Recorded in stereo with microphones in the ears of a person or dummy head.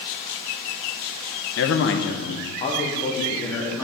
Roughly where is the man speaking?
Left.